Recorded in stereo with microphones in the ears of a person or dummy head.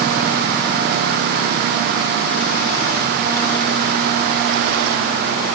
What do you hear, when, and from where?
Only background noise.